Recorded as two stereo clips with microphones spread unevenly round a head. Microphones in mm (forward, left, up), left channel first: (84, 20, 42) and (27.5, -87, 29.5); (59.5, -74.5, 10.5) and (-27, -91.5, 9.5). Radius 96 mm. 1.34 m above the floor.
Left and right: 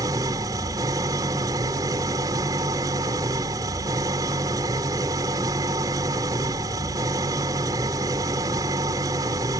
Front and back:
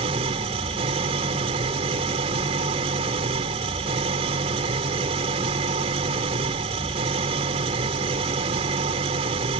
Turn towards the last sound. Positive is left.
turn(degrees=170)